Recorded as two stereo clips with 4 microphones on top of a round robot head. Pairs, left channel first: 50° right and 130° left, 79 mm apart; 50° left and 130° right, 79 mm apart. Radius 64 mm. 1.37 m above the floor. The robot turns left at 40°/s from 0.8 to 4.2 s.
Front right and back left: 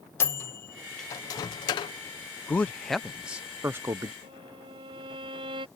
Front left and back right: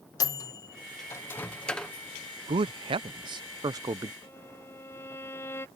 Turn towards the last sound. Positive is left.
turn(degrees=115)